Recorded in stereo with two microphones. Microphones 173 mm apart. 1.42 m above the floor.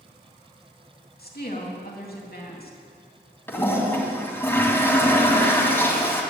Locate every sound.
1.2 s a woman speaking: 65° left (ahead or behind), 3 m
3.5 s a toilet flushing: 15° left (ahead or behind), 2.5 m